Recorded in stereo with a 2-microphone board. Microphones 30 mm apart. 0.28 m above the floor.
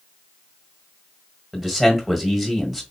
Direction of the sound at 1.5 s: 5° right (ahead or behind).